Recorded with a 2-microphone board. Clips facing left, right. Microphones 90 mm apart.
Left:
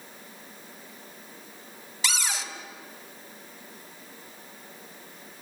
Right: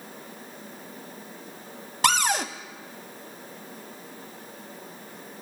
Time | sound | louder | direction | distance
2.0 | a cupboard door | right 10 dB | 55° right (ahead or behind) | 1.2 m